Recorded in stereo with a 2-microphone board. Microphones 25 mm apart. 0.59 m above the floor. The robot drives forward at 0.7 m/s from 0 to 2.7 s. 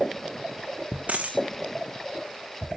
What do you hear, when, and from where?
1.1 s a dropped coin: 65° right (ahead or behind), 1.9 m; by 1.4 s 70° right (ahead or behind), 1.9 m